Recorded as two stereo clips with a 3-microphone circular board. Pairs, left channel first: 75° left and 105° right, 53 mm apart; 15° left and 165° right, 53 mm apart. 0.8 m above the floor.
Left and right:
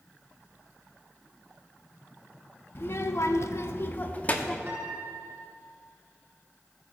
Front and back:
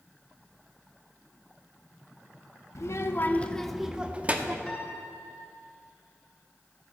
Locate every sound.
2.8 s a child speaking: 35° left, 0.9 m; by 4.6 s 140° left, 1.3 m
4.7 s a piano: 60° right, 1.8 m